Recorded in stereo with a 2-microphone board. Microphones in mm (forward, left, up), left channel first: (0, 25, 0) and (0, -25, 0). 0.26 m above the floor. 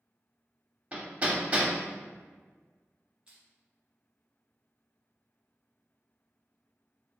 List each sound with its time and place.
0.9 s hammering: 25° right (ahead or behind), 0.7 m
3.3 s crushing: 20° right (ahead or behind), 1.1 m